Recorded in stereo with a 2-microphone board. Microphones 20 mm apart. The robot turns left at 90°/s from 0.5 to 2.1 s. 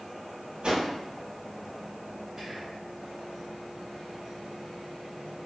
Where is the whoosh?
60° right (ahead or behind), 1.1 m; by 0.9 s 50° right (ahead or behind), 1.1 m.